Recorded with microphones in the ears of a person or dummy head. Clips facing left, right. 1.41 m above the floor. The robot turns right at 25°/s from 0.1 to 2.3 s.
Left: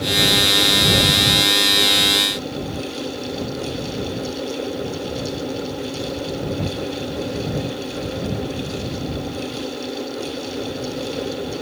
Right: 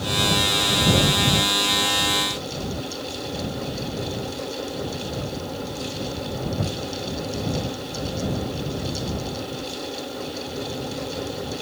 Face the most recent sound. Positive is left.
No sound to turn to.